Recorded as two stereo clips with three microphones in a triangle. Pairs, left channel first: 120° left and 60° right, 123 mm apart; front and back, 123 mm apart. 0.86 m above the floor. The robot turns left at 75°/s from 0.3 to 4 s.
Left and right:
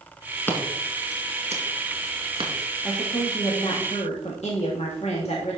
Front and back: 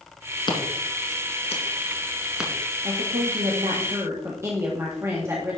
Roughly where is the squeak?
No squeak in this recording.